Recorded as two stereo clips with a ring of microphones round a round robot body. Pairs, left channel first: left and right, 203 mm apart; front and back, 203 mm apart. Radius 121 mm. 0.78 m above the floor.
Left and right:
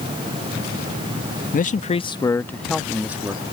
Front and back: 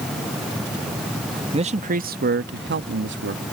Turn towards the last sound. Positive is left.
turn(degrees=-165)